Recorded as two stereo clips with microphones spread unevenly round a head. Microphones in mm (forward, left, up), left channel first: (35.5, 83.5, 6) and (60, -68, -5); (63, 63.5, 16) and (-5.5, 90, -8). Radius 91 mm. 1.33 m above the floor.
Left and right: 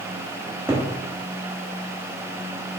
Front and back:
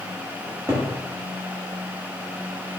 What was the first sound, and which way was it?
A cupboard door, 140° right.